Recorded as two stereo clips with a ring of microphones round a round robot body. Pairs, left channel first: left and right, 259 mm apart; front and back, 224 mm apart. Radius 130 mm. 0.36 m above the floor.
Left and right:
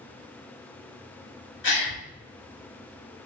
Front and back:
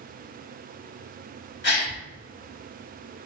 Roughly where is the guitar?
No guitar in this recording.